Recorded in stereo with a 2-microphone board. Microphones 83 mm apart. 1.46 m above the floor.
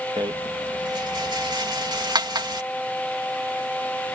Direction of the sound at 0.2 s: 60° right (ahead or behind).